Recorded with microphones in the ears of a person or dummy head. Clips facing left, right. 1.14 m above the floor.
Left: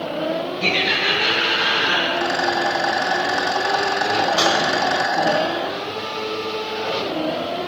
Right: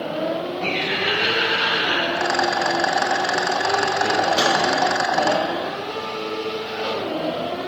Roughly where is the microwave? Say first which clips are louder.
Even; right.